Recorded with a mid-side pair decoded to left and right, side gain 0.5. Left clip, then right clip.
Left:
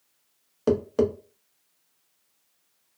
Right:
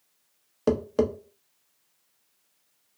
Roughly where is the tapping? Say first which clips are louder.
Left 1 dB; ahead.